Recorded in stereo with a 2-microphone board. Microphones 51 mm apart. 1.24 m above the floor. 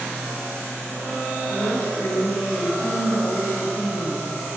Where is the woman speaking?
85° left, 2 m.